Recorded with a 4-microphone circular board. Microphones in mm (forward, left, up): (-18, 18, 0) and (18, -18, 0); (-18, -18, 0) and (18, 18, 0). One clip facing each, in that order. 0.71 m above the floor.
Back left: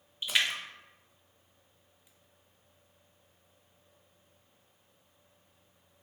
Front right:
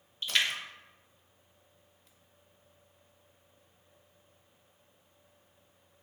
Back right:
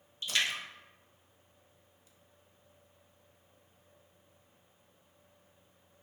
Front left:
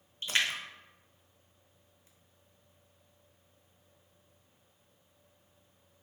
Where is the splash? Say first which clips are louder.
Even, front left 1 dB; 65° left, 0.7 m.